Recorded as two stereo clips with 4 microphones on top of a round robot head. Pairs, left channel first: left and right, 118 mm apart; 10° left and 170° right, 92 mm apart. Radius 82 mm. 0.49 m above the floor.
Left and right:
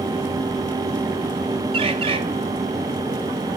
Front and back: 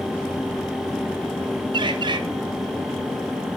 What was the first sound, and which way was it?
A bird, 130° right.